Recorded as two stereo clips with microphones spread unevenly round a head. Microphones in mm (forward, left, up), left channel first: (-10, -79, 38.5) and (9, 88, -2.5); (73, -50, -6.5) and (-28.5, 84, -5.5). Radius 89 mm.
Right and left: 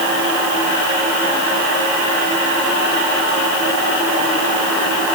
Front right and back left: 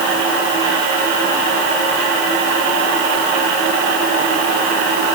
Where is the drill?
No drill in this recording.